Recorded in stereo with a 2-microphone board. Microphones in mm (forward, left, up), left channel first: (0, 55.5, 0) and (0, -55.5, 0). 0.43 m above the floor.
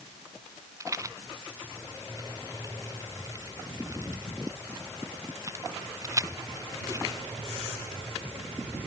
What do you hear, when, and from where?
0.8 s a rattle: 30° right (ahead or behind)